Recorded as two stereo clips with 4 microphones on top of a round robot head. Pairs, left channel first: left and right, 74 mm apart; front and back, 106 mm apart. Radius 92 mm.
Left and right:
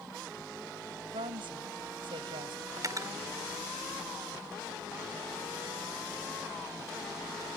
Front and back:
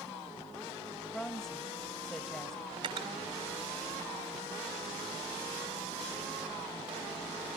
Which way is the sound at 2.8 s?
130° right.